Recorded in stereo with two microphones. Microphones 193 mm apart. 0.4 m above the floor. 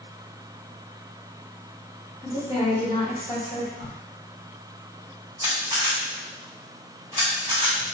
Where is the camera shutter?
45° left (ahead or behind), 1.9 m.